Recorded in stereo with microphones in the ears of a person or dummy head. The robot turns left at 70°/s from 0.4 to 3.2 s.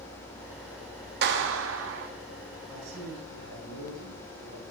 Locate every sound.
1.2 s a clap: 65° right, 1.5 m; by 2.1 s 130° right, 1.5 m
2.7 s a man speaking: 85° right, 9 m; by 4.6 s 120° right, 9 m